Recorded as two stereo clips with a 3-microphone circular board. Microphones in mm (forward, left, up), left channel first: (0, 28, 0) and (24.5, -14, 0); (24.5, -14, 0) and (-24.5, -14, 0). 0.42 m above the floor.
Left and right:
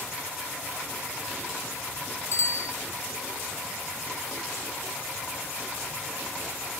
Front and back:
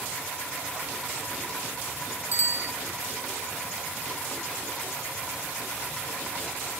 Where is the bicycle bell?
135° left, 2 m.